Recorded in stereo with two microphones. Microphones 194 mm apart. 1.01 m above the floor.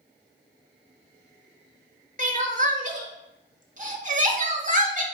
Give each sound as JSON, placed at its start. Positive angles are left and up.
{"t": 2.2, "sound": "crying", "side_deg": -40, "distance_m": 0.7}